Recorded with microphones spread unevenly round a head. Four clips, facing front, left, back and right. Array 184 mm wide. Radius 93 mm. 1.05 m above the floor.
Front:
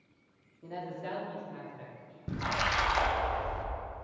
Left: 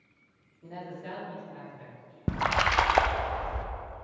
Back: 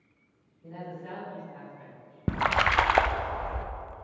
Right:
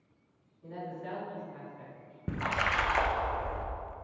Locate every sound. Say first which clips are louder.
0.6 s a man speaking: even, front 2 dB; 25° left, 3 m; by 2.2 s 5° left, 3.5 m
2.3 s a splash: left 5 dB, back 7 dB; 145° left, 0.6 m